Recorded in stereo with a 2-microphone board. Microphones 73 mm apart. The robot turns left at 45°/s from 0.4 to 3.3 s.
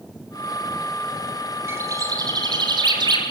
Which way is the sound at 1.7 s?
30° right.